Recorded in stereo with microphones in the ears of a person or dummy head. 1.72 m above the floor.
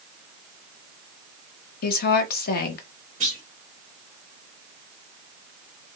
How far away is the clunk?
About 1.5 m.